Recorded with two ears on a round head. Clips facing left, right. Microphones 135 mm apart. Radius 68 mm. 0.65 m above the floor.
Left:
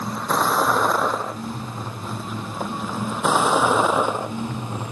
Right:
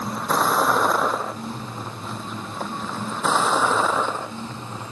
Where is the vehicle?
Centre (ahead or behind); by 4.9 s 15° left (ahead or behind).